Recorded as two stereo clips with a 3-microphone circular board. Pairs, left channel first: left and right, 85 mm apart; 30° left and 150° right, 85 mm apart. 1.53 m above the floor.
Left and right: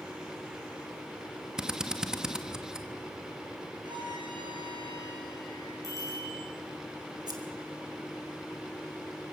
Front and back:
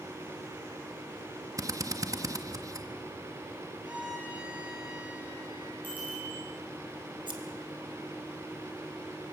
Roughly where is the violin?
Right.